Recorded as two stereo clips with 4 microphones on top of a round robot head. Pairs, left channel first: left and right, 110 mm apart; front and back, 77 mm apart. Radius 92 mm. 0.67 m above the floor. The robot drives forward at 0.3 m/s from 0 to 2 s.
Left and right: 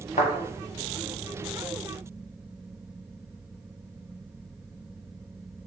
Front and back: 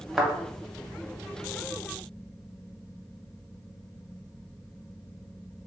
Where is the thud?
100° left, 0.6 m; by 0.3 s 105° left, 0.6 m.